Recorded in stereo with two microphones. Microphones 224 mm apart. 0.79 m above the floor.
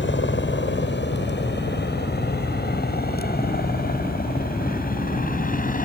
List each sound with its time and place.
0.0 s a helicopter: 55° left (ahead or behind); by 5.9 s 35° left (ahead or behind)